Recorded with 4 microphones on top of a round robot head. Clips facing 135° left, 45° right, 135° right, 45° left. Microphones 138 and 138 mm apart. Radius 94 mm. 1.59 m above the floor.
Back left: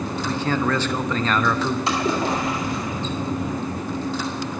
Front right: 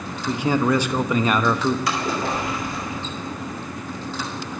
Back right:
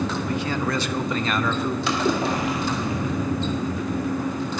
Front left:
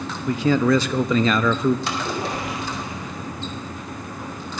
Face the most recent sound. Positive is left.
turn(degrees=-155)